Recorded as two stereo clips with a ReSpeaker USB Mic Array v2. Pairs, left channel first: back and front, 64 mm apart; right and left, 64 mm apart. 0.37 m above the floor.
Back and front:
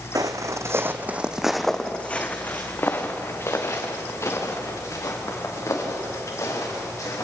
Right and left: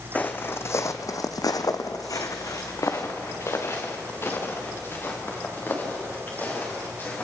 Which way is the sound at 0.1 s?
25° right.